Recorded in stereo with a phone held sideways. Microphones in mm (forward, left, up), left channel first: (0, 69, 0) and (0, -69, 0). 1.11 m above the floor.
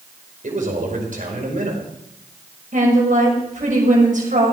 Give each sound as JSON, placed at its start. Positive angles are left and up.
{"t": 0.4, "sound": "a man speaking", "side_deg": -65, "distance_m": 5.0}
{"t": 2.7, "sound": "a woman speaking", "side_deg": -60, "distance_m": 6.0}